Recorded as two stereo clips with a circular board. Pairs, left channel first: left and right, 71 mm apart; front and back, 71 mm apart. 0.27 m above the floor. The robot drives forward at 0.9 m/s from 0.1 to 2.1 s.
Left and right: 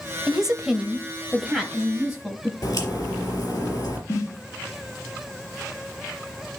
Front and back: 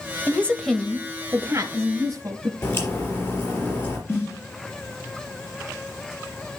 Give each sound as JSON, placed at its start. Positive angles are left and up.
{"t": 0.3, "sound": "a woman speaking", "azimuth_deg": -15, "distance_m": 1.0}
{"t": 2.6, "sound": "a crack", "azimuth_deg": 55, "distance_m": 4.0}
{"t": 4.1, "sound": "a snare drum", "azimuth_deg": 50, "distance_m": 3.0}